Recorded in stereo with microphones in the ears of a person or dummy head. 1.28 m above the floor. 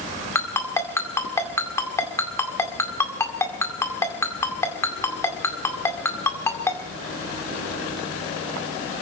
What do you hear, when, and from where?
0.3 s a ringtone: 15° left (ahead or behind), 2.0 m